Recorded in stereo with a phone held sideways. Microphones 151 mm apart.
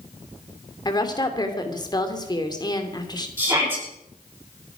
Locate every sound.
0.8 s a woman speaking: 25° left (ahead or behind), 2.5 m
3.4 s a shout: 25° right (ahead or behind), 7 m